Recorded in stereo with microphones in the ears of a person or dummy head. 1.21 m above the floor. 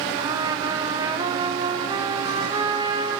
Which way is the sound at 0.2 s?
20° right (ahead or behind).